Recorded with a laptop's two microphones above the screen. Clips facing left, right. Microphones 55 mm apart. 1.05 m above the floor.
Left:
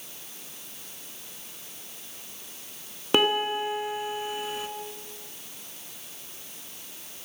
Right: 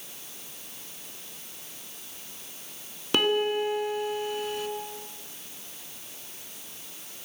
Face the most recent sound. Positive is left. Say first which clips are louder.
# left 1 dB
turn(degrees=25)  # may be behind; listen again after turning